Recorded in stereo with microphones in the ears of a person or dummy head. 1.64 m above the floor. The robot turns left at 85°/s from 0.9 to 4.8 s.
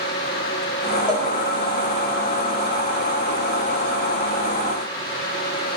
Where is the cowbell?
10° left (ahead or behind), 0.8 m; by 1.3 s 5° left (ahead or behind), 0.8 m.